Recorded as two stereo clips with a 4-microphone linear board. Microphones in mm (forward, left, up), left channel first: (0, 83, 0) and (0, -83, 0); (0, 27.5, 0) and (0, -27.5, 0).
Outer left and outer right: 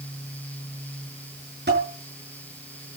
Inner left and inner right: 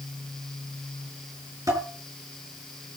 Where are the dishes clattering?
90° right, 7.5 m.